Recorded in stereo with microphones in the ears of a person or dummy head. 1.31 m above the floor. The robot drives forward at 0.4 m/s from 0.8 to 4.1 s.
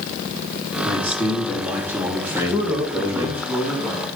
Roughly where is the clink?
No clink in this recording.